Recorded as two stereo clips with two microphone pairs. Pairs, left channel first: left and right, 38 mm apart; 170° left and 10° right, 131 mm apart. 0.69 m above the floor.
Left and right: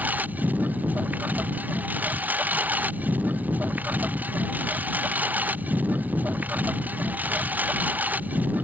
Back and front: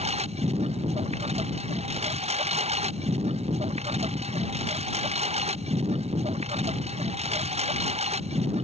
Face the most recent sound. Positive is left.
turn(degrees=-45)